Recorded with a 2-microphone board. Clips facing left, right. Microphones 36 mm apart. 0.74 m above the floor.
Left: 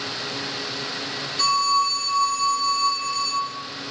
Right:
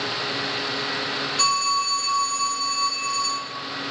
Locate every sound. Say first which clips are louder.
1.4 s a phone ringing: left 3 dB; 85° right, 2.0 m